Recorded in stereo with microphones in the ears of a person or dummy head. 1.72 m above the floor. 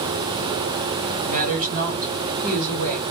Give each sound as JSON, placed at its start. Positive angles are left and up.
{"t": 1.2, "sound": "a woman speaking", "side_deg": -50, "distance_m": 2.0}